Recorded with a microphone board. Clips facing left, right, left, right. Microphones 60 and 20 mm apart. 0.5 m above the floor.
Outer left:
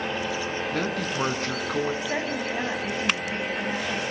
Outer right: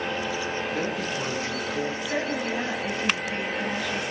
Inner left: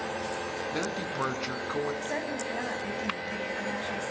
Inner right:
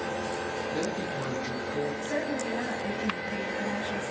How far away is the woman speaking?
About 3.5 m.